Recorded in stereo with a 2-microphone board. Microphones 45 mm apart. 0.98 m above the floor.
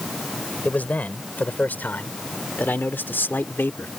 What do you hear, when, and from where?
0.7 s a man speaking: 40° left (ahead or behind); by 3.9 s 55° left (ahead or behind)